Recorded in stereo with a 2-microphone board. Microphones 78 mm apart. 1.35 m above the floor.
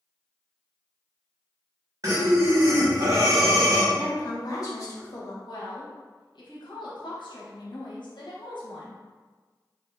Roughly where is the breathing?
Right.